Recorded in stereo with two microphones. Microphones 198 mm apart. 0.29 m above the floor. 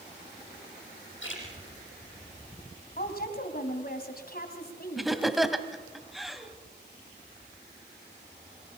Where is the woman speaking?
50° left (ahead or behind), 2.5 m.